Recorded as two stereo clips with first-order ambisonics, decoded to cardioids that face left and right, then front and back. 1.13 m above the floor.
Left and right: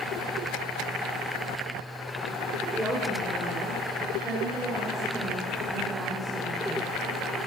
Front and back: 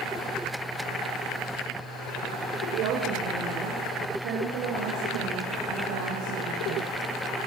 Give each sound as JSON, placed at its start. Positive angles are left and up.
{"t": 2.7, "sound": "a woman speaking", "azimuth_deg": 170, "distance_m": 5.0}